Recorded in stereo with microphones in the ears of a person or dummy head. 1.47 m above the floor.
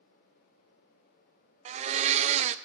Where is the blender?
35° right (ahead or behind), 0.5 m.